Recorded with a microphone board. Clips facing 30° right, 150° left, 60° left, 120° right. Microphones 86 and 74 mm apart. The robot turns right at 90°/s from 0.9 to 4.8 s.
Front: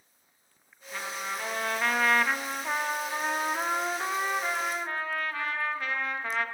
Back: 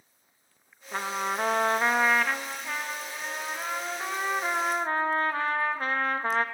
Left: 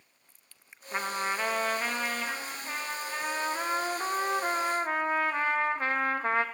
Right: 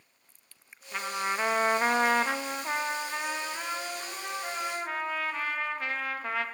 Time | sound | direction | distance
0.9 | a trumpet | 120° left | 0.5 m